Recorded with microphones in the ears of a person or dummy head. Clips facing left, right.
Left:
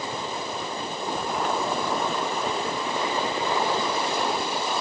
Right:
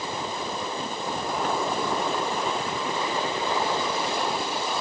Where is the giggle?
I don't hear a giggle.